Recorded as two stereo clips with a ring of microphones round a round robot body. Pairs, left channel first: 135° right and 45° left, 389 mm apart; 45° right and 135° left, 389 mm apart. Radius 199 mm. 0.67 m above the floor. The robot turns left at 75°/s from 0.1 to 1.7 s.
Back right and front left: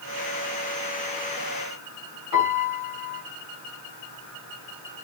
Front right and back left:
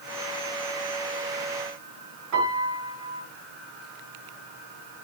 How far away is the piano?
About 6.5 m.